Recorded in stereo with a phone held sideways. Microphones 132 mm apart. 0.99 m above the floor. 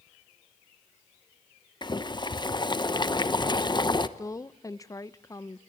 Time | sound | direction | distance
1.8 | boiling | 35° left (ahead or behind) | 0.9 m
4.2 | a woman speaking | 25° left (ahead or behind) | 0.6 m